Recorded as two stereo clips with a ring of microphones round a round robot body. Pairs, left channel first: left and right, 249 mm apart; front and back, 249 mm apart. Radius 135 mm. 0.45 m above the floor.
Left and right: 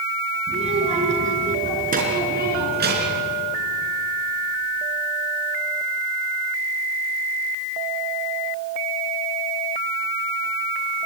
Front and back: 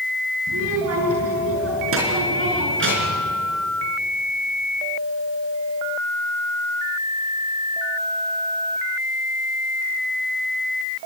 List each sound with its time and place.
0.5 s a child speaking: 155° right, 4.5 m; by 3.2 s 135° right, 4 m